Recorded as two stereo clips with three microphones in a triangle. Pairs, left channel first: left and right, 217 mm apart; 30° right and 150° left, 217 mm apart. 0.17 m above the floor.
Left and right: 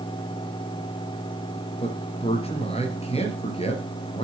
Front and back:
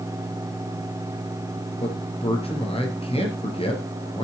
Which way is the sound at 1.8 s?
30° left.